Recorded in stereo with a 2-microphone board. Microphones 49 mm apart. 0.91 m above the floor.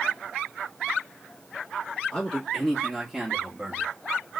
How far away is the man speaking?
About 1.6 m.